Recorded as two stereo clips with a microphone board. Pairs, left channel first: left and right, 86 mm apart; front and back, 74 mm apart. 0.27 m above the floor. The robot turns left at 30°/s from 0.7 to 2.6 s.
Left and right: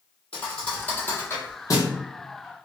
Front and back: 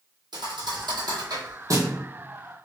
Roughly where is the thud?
Behind.